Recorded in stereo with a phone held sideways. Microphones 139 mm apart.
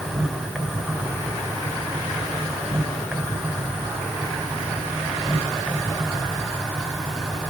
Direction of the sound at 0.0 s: Centre (ahead or behind).